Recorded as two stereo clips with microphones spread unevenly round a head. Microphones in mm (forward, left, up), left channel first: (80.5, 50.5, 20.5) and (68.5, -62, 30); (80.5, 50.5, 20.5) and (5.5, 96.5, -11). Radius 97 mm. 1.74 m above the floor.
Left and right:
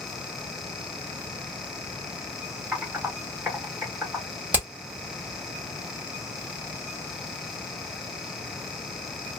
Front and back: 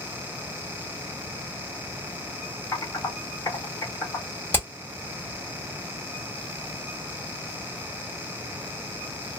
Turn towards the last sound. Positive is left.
turn(degrees=-35)